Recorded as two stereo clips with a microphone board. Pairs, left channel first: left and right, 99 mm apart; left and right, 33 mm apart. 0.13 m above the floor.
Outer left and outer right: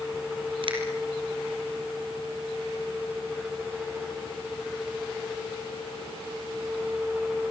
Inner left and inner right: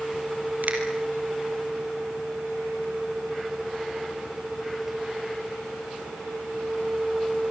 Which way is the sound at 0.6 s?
60° right (ahead or behind).